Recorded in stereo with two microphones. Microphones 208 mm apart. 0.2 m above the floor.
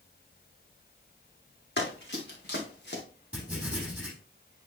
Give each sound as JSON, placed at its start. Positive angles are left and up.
{"t": 1.8, "sound": "running footsteps", "side_deg": 55, "distance_m": 4.0}
{"t": 3.3, "sound": "writing", "side_deg": -5, "distance_m": 4.0}